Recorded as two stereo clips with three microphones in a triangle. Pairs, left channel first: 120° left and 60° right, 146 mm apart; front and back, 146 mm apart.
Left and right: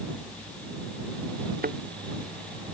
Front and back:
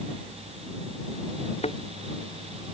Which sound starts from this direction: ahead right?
A thud, at 1.6 s.